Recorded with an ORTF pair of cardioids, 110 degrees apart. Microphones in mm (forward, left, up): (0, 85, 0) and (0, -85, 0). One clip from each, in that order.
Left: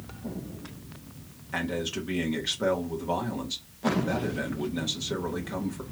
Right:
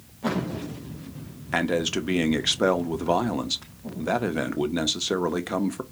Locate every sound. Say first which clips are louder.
1.5 s a man speaking: right 6 dB; 45° right, 0.8 m